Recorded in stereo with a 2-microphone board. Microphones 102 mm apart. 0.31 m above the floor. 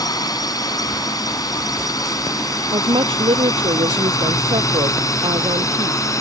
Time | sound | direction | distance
0.0 | a drone | 40° left (ahead or behind) | ?
2.7 | a woman speaking | 65° right (ahead or behind) | ?